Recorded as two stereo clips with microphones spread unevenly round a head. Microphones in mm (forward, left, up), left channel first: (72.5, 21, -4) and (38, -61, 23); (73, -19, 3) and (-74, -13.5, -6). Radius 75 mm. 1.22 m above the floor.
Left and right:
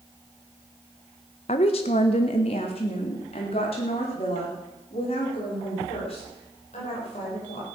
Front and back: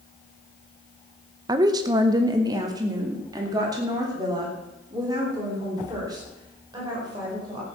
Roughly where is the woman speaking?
Left.